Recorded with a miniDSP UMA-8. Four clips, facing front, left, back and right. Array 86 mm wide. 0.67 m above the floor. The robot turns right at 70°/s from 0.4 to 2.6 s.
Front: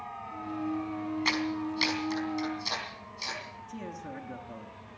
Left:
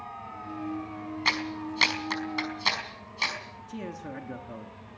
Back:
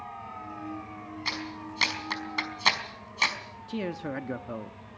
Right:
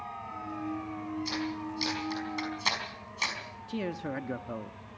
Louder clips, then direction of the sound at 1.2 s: Left 3 dB, front 5 dB; 75° left.